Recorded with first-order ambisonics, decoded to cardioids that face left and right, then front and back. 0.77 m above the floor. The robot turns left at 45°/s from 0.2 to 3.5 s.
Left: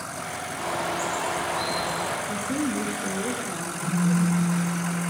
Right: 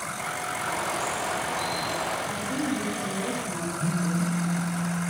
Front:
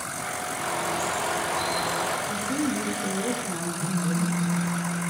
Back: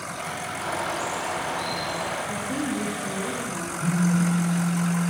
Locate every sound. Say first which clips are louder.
0.6 s a bird: left 3 dB, even; 100° left, 1.2 m; by 2.2 s 30° left, 1.2 m
2.3 s a woman speaking: left 1 dB, front 1 dB; 85° left, 0.6 m; by 4.8 s 30° left, 0.6 m
3.8 s a phone buzzing: left 2 dB, back 3 dB; 60° right, 2.5 m